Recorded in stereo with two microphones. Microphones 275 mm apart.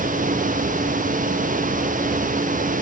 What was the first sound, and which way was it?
Only background noise.